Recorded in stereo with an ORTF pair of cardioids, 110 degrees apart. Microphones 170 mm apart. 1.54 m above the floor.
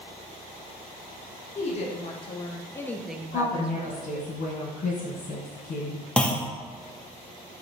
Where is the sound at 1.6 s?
45° left, 1.1 m; by 4.3 s 65° right, 0.7 m.